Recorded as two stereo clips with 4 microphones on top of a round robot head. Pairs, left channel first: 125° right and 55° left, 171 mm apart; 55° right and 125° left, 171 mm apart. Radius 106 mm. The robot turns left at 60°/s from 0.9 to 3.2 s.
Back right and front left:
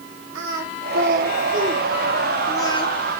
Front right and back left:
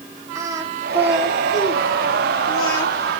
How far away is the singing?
About 1.8 m.